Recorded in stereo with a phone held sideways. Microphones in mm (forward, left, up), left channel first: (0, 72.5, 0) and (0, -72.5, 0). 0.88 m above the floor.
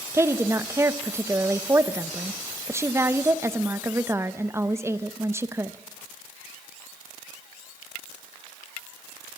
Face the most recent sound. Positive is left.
turn(degrees=-20)  # may be behind; listen again after turning